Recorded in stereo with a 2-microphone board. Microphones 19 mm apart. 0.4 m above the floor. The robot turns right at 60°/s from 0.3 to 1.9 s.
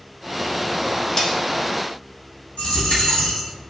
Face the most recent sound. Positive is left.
turn(degrees=75)  # may be behind; listen again after turning